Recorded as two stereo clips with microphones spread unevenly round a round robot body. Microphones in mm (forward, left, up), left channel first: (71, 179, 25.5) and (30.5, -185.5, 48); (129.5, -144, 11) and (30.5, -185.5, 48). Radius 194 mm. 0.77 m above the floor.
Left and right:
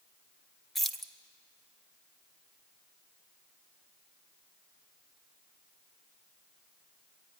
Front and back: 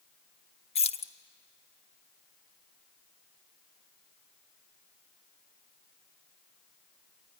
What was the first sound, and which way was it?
Keys jangling, 5° right.